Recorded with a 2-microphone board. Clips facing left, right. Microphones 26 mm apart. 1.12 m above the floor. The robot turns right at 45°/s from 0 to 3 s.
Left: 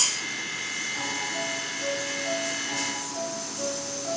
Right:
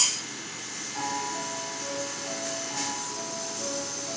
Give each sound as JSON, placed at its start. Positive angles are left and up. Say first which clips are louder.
{"t": 0.9, "sound": "a piano", "louder": "left 2 dB", "azimuth_deg": -10, "distance_m": 3.0}